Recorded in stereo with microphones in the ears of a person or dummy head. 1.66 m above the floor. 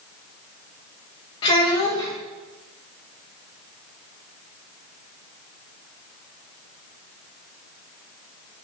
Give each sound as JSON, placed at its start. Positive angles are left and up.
{"t": 1.4, "sound": "a child speaking", "side_deg": 20, "distance_m": 0.6}